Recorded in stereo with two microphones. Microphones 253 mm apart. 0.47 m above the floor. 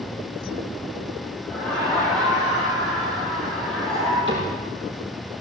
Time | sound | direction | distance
1.4 | laughter | 5° left (ahead or behind) | 5.5 m
4.3 | a cupboard door | 45° right (ahead or behind) | 6.5 m